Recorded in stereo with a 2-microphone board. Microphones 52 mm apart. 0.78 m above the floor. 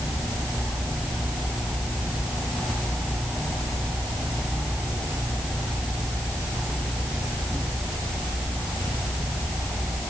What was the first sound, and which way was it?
Only background noise.